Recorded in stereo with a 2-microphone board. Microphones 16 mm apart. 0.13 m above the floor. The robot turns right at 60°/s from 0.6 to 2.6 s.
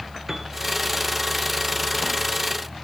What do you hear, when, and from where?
0.3 s a piano: 5° right (ahead or behind), 2 m